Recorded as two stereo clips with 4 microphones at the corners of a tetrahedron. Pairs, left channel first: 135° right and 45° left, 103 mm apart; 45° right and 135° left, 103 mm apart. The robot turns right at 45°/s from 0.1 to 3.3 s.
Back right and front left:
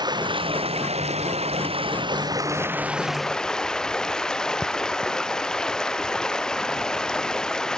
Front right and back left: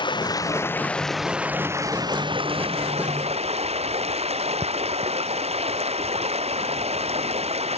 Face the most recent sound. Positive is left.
turn(degrees=140)